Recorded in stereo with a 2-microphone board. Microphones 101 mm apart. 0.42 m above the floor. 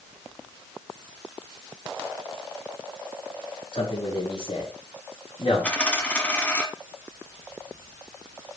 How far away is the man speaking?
About 5.5 m.